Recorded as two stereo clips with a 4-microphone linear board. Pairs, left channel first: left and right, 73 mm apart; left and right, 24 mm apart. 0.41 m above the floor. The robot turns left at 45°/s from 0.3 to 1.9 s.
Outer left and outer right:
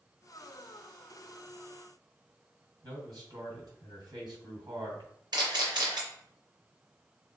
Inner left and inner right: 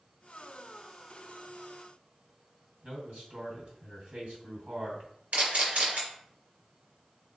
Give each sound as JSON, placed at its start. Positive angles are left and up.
{"t": 2.8, "sound": "a man speaking", "side_deg": -65, "distance_m": 3.0}
{"t": 5.3, "sound": "a camera shutter", "side_deg": -75, "distance_m": 2.5}